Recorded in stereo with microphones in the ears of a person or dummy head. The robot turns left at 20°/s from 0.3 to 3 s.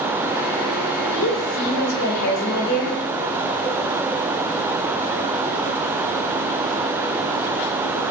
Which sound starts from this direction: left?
A woman speaking, at 1.1 s.